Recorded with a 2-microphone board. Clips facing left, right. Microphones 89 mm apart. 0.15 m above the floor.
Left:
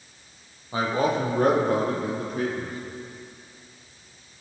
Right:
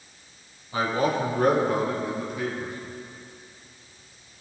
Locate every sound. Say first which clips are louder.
0.7 s a man speaking: left 1 dB; 30° left (ahead or behind), 5 m; by 2.8 s 55° left (ahead or behind), 3 m